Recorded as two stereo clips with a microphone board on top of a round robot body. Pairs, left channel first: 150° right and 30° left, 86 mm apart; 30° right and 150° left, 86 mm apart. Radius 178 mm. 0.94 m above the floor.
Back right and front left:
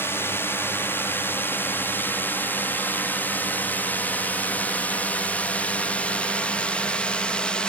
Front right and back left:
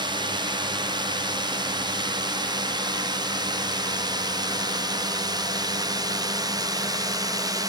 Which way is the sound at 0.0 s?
150° left.